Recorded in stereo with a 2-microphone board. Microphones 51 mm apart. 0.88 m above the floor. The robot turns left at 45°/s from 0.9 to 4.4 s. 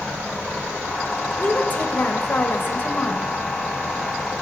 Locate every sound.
1.4 s a woman speaking: 135° left, 1.0 m; by 3.3 s 50° left, 1.0 m